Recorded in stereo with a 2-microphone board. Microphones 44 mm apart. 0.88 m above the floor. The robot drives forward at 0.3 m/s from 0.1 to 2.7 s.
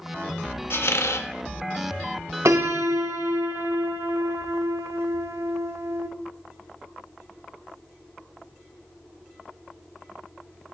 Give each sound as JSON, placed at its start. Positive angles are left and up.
{"t": 0.7, "sound": "a squeak", "side_deg": 60, "distance_m": 0.5}
{"t": 2.5, "sound": "a piano", "side_deg": -75, "distance_m": 0.6}